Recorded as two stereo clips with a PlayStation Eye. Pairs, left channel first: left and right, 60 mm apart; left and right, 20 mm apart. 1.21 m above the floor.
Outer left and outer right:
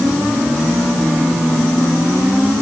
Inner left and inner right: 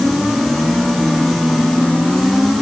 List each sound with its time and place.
Only background noise.